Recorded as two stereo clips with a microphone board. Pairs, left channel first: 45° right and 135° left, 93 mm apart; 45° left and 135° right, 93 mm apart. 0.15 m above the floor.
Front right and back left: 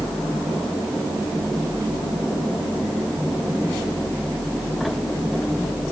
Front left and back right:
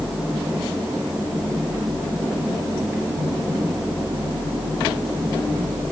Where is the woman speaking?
No woman speaking in this recording.